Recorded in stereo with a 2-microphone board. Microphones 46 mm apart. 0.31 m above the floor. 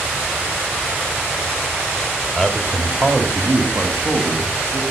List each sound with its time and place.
2.4 s a man speaking: centre (ahead or behind), 1.4 m; by 4.8 s 65° right (ahead or behind), 3 m